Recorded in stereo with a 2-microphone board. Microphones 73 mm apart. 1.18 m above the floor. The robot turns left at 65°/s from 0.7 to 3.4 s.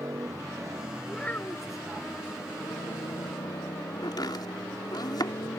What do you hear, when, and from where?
0.0 s a motorcycle: 45° right (ahead or behind); by 5.6 s 65° left (ahead or behind)
1.1 s a child speaking: 175° left; by 1.8 s 125° left
4.0 s chopping: 70° left (ahead or behind)